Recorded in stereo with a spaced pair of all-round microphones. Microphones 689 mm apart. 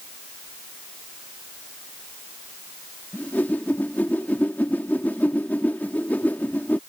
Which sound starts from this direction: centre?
A whoosh, at 3.1 s.